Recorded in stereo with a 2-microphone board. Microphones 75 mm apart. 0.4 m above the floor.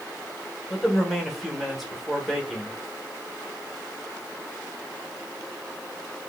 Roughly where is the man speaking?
Centre.